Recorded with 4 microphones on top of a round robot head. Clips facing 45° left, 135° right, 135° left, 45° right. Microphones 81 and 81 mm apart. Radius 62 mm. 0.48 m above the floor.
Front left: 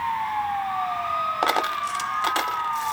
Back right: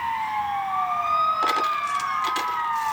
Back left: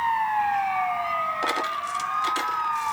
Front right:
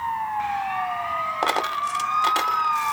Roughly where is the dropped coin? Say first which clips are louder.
Even, front right 3 dB; ahead.